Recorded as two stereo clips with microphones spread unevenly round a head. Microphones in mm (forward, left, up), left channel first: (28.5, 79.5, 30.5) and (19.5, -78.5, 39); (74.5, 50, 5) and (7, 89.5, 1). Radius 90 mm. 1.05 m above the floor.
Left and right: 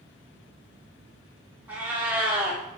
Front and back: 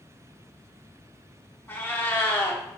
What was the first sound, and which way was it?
A cat meowing, 30° right.